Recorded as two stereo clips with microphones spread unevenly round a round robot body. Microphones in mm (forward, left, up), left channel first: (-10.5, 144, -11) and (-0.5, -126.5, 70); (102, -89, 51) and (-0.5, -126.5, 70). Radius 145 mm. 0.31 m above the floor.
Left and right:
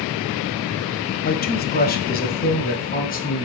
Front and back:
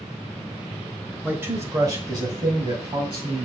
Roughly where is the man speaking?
Behind left.